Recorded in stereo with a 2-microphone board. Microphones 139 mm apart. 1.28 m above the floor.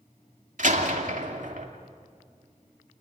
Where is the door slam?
65° right (ahead or behind), 2.5 m.